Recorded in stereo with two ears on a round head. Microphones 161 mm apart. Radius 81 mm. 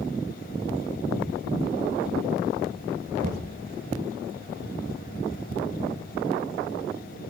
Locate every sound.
3.2 s knocking: 45° right (ahead or behind), 1.4 m